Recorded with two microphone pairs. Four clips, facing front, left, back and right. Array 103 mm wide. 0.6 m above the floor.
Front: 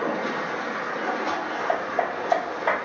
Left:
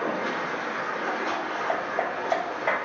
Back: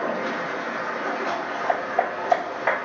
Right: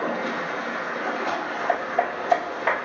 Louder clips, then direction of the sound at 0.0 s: Right 1 dB, even; 120° right.